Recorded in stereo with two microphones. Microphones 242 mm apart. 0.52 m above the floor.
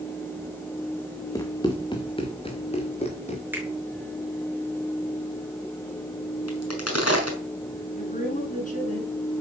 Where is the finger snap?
5° right (ahead or behind), 6.5 m.